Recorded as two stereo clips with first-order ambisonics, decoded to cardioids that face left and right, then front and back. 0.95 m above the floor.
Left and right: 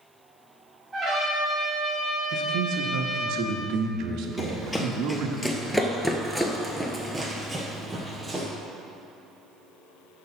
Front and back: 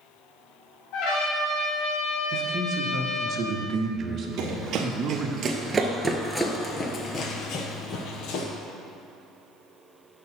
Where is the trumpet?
10° right, 3 m.